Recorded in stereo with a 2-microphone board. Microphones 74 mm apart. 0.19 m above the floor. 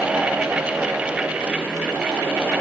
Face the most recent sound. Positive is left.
No sound to turn to.